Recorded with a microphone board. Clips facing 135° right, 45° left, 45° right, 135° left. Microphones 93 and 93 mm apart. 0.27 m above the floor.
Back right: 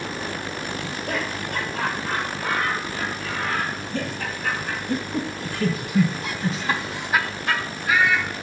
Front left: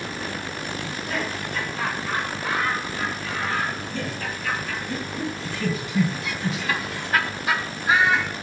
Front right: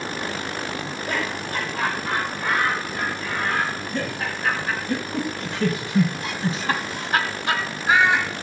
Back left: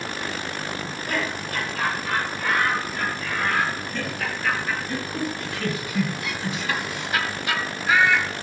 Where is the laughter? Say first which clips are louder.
Even, back left 1 dB; 115° right, 8 m; by 8.3 s 25° left, 1.5 m.